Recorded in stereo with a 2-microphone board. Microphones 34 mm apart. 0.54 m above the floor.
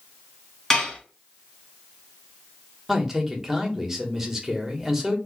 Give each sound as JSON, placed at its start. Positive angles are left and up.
{"t": 0.7, "sound": "dishes clattering", "side_deg": 15, "distance_m": 2.0}
{"t": 2.9, "sound": "a man speaking", "side_deg": -15, "distance_m": 1.2}